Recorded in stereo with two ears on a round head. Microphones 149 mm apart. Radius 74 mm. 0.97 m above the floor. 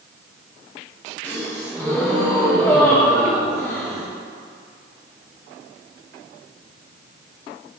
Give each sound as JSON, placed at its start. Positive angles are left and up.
{"t": 1.2, "sound": "a gasp", "side_deg": 15, "distance_m": 1.4}